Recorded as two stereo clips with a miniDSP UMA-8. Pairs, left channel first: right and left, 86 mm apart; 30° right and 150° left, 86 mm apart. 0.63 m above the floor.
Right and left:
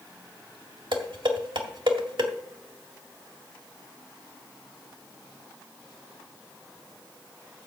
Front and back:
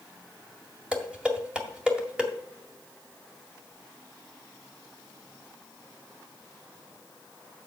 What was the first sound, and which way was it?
Dishes clattering, 70° left.